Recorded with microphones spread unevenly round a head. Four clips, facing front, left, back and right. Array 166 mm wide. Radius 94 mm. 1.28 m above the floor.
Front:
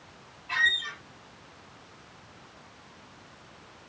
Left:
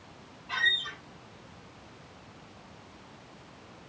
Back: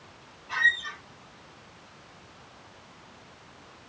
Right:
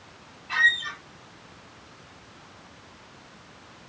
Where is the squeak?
50° left, 5.5 m.